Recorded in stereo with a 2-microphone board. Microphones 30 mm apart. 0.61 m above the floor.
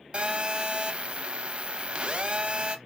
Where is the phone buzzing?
35° right (ahead or behind), 0.7 m.